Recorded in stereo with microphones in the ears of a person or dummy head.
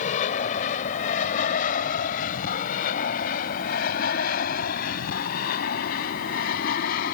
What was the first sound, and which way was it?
An aircraft, 50° left (ahead or behind).